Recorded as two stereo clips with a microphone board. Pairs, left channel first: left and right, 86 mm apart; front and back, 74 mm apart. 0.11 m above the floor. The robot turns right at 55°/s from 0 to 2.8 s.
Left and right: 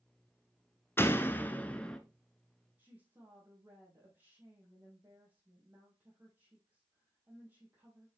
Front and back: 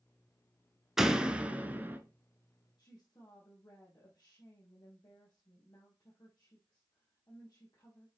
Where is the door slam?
105° left, 0.8 m; by 2.0 s 160° left, 0.8 m.